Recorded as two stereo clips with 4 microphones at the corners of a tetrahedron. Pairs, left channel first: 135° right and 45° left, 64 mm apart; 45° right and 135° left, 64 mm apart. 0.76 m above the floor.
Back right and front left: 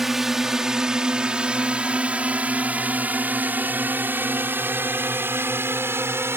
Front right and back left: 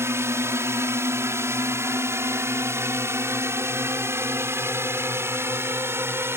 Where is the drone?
130° left; by 6.4 s 90° left.